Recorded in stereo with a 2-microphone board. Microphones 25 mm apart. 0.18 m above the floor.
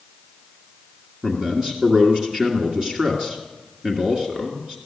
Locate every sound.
1.2 s a man speaking: 35° right (ahead or behind), 2 m